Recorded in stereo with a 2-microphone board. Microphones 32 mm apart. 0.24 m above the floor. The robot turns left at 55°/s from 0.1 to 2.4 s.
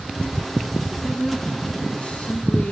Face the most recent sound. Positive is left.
turn(degrees=115)